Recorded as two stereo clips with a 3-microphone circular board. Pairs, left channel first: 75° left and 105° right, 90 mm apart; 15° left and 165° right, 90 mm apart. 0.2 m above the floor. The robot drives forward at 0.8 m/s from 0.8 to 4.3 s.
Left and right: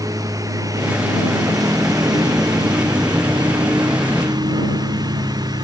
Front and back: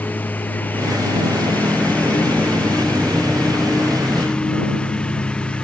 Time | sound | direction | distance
0.0 | a lawn mower | 55° right | ?